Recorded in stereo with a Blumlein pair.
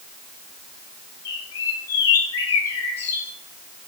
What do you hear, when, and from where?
1.2 s a bird: 60° left, 3 m